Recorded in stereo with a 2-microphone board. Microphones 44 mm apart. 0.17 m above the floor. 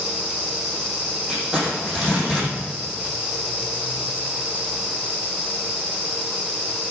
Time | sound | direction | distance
1.3 | crumpling | 20° right (ahead or behind) | 6.5 m